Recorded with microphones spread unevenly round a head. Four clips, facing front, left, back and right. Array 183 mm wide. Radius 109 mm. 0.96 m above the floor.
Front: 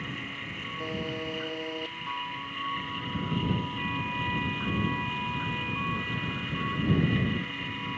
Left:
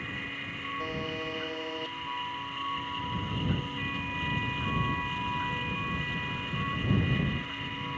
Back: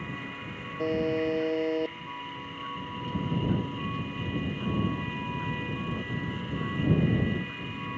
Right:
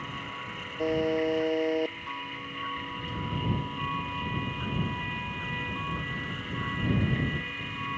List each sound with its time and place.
0.8 s a buzzer: 140° right